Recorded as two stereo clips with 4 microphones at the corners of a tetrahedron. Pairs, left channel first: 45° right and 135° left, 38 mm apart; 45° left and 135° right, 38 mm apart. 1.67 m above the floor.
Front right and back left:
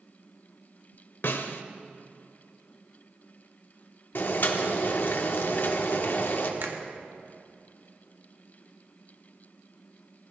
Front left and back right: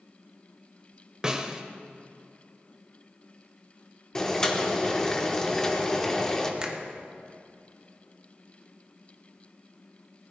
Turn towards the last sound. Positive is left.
turn(degrees=160)